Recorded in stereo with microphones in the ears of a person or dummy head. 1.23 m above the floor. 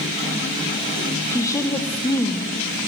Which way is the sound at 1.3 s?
15° left (ahead or behind).